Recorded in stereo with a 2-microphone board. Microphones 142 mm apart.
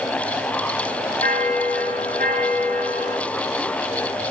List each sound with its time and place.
1.2 s a bell: 80° right, 9.5 m